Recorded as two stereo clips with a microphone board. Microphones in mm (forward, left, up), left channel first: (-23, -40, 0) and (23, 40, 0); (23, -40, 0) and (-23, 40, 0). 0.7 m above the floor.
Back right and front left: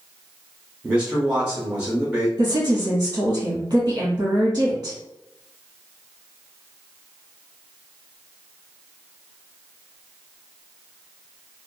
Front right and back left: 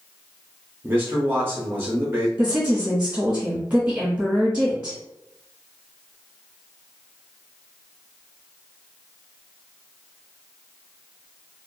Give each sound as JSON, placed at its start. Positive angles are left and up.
{"t": 0.8, "sound": "a man speaking", "azimuth_deg": 115, "distance_m": 0.6}
{"t": 2.4, "sound": "a woman speaking", "azimuth_deg": 65, "distance_m": 1.1}